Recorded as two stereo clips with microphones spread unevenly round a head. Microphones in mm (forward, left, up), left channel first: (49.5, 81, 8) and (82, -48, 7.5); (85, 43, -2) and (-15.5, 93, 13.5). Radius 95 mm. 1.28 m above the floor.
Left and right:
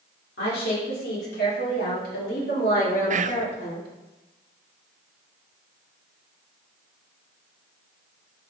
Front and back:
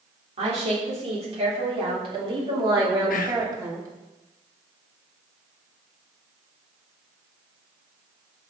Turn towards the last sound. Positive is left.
turn(degrees=-40)